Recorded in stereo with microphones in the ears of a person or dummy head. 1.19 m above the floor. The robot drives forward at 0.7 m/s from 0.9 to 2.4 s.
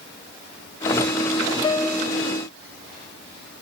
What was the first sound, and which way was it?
A piano, 20° left (ahead or behind).